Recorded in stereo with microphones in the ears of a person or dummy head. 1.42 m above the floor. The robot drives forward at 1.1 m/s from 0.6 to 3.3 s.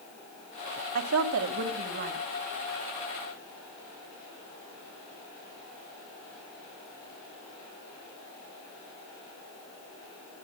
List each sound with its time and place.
0.9 s a woman speaking: 80° right, 1.7 m; by 2.2 s 45° right (ahead or behind), 2.5 m